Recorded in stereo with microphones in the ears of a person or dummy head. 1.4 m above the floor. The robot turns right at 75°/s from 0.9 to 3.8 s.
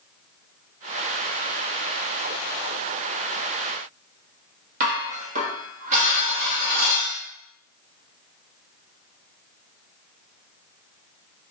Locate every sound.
4.8 s dishes clattering: 45° right (ahead or behind), 1.2 m